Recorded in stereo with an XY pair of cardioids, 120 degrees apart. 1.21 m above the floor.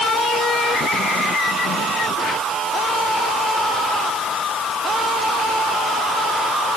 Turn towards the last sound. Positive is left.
No sound to turn to.